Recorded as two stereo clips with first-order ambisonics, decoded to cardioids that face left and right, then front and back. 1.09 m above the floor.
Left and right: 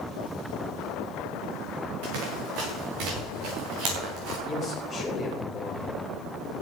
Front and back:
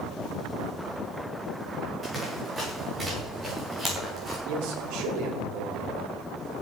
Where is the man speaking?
160° left, 4 m.